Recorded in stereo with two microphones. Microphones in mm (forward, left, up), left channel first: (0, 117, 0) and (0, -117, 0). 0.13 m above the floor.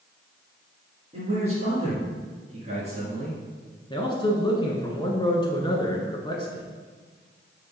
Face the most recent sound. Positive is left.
turn(degrees=20)  # may be behind; listen again after turning